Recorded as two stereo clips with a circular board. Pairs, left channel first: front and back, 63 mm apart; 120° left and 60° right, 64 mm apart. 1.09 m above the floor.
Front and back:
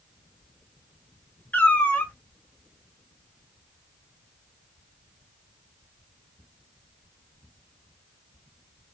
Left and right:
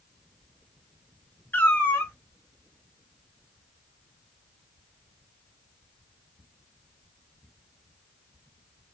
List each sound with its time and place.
1.5 s a cat meowing: 65° left, 0.7 m